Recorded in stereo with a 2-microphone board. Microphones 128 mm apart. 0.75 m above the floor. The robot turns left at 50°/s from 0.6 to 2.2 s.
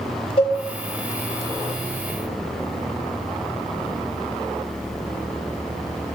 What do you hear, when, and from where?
0.4 s a cowbell: 45° left (ahead or behind), 1.4 m